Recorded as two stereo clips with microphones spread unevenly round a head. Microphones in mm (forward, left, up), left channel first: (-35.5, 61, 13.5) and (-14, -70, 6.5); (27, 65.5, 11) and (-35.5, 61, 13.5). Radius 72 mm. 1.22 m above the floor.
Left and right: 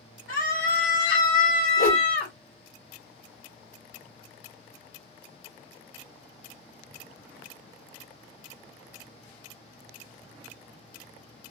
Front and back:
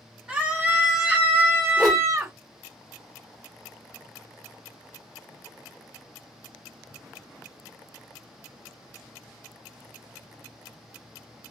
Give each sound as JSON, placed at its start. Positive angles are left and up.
{"t": 0.3, "sound": "a scream", "azimuth_deg": 110, "distance_m": 1.6}
{"t": 1.8, "sound": "a whoosh", "azimuth_deg": 95, "distance_m": 1.3}